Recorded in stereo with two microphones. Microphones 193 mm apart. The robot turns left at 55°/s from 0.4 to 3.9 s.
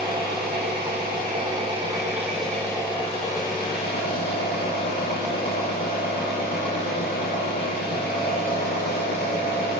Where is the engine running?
70° right, 0.9 m; by 9.8 s 95° left, 0.9 m.